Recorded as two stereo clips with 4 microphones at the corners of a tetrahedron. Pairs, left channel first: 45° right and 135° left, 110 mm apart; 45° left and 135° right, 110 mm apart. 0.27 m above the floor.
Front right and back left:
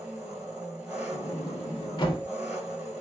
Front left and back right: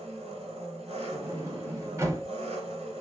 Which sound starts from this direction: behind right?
An engine running, at 0.0 s.